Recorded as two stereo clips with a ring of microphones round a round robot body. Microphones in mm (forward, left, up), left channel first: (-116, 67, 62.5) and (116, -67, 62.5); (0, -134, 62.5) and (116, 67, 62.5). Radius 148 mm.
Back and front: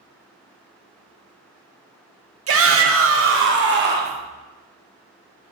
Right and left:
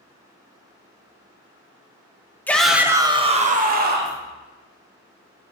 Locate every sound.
2.5 s a shout: 40° right, 1.1 m; by 4.2 s 25° left, 1.6 m